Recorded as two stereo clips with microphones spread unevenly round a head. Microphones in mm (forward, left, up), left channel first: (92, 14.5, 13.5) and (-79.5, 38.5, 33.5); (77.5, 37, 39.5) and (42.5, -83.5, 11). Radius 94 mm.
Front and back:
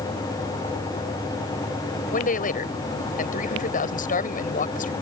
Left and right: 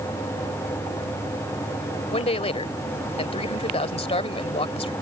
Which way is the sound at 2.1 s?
35° left.